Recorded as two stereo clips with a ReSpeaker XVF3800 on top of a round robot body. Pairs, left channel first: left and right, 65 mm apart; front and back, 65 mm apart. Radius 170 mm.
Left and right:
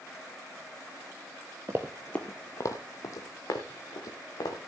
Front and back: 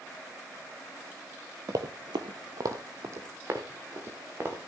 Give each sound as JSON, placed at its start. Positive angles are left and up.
{"t": 1.7, "sound": "running footsteps", "azimuth_deg": -140, "distance_m": 0.6}